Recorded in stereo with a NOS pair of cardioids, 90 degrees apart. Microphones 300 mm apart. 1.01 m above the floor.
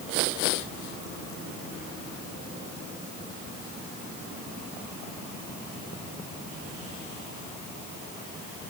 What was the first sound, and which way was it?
Only background noise.